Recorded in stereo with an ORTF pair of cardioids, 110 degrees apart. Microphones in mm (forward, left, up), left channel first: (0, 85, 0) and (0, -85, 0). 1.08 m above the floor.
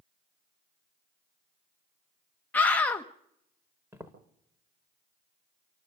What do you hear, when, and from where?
2.5 s a scream: 10° left, 1.0 m
3.9 s footsteps: 15° right, 6 m